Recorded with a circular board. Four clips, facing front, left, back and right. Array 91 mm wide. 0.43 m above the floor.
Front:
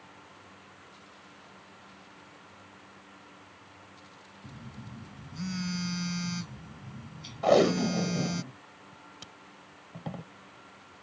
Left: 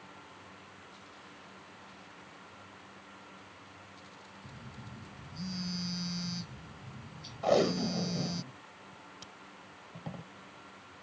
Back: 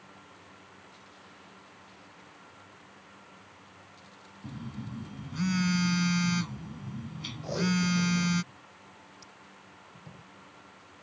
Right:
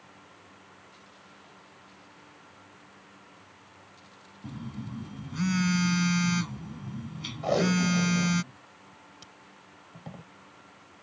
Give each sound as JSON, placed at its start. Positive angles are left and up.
{"t": 4.4, "sound": "a phone buzzing", "azimuth_deg": -115}
{"t": 7.4, "sound": "tape being pulled", "azimuth_deg": -5}